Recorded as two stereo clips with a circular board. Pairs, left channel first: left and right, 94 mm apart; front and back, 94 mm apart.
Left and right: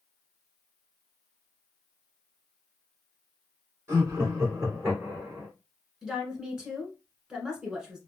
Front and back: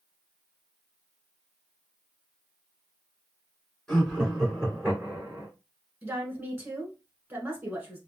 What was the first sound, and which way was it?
Laughter, 75° right.